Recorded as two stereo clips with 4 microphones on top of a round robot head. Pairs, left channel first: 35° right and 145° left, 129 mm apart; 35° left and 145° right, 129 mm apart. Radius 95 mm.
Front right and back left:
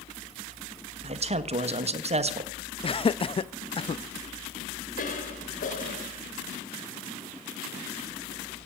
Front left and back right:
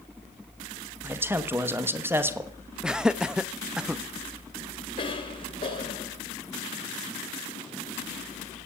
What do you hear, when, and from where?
1.0 s a man speaking: 150° left, 1.3 m
2.8 s laughter: 60° right, 0.7 m
5.0 s a cough: 15° right, 3 m